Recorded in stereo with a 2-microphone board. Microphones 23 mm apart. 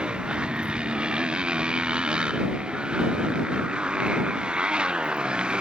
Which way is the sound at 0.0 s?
45° right (ahead or behind).